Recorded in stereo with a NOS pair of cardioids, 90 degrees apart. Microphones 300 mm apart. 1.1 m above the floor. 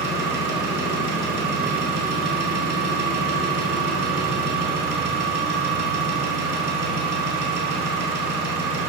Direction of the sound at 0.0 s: 60° right.